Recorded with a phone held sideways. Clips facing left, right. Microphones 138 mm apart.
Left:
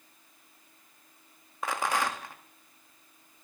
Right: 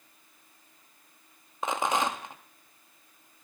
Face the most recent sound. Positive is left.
turn(degrees=-20)  # may be behind; listen again after turning